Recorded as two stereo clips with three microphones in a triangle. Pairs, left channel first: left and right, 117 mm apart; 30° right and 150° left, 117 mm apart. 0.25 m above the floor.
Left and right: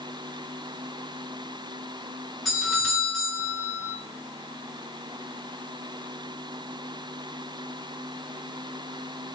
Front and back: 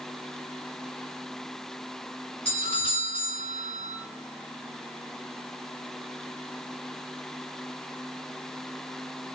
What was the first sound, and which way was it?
A doorbell, straight ahead.